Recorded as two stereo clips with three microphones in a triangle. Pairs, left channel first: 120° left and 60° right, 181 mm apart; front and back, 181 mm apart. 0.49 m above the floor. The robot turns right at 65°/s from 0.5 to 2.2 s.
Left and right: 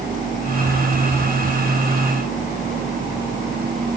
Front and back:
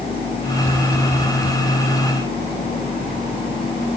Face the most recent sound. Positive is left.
No sound to turn to.